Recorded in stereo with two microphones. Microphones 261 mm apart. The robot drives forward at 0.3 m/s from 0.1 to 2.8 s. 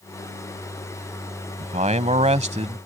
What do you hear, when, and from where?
1.6 s a man speaking: 30° right (ahead or behind); by 2.9 s 25° right (ahead or behind)